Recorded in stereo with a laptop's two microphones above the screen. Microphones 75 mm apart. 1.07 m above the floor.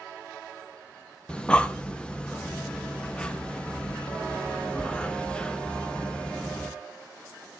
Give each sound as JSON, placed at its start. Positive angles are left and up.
{"t": 1.3, "sound": "breathing", "side_deg": 15, "distance_m": 0.8}